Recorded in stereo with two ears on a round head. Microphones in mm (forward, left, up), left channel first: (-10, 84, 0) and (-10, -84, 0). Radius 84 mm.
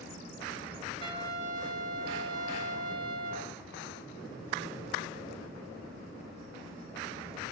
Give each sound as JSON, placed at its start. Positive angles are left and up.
{"t": 1.0, "sound": "a trumpet", "side_deg": -25, "distance_m": 2.5}